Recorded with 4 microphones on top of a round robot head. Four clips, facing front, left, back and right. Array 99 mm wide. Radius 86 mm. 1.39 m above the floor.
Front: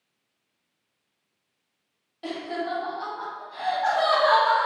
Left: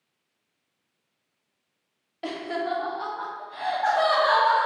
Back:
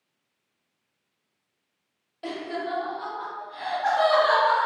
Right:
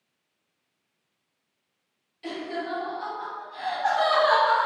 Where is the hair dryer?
I don't hear a hair dryer.